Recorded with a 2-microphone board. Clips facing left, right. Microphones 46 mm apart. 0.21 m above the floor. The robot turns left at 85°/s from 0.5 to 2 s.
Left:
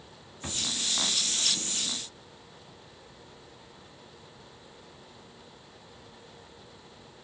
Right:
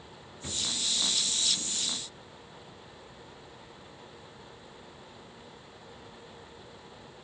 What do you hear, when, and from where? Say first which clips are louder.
0.4 s a drawer: left 1 dB; 50° left (ahead or behind), 1.0 m; by 0.7 s 55° left (ahead or behind), 1.0 m